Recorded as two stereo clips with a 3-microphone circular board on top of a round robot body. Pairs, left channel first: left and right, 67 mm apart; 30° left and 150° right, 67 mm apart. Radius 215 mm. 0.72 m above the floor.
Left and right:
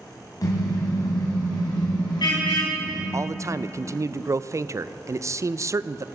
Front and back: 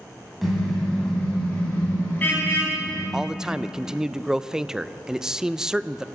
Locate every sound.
0.4 s a car horn: 120° left, 3.5 m; by 3.0 s 85° left, 4.5 m
3.1 s a man speaking: 70° right, 0.6 m